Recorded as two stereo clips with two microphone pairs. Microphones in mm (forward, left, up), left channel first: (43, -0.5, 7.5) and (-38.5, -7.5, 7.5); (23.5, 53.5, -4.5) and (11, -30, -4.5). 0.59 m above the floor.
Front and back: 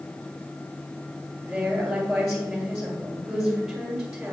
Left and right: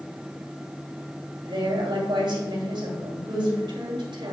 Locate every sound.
1.4 s a woman speaking: 90° right, 2 m